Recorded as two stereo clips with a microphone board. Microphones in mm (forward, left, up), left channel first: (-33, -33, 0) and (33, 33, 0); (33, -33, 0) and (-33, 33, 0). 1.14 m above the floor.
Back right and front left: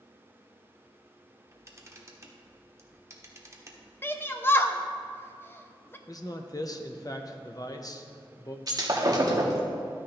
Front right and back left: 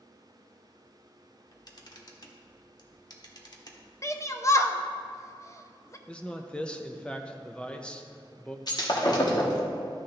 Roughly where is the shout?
Right.